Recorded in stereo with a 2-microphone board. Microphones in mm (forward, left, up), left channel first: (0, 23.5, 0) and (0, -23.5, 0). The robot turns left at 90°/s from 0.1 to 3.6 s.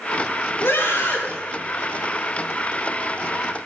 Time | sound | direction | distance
0.6 | a scream | 90° left | 3 m